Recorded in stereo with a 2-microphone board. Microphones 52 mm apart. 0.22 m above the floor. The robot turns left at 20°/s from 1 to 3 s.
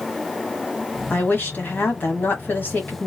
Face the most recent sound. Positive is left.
turn(degrees=70)